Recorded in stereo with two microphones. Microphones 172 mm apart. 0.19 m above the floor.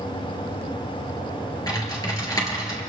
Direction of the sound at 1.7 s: 20° left (ahead or behind).